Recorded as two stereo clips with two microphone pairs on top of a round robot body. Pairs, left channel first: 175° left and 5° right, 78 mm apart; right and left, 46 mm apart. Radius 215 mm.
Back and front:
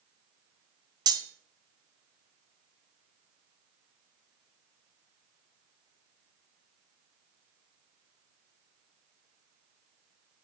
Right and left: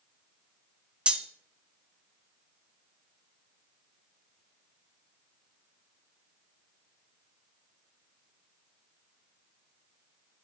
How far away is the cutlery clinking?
About 0.8 m.